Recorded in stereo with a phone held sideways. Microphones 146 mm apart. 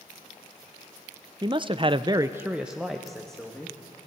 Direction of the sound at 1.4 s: 30° right (ahead or behind).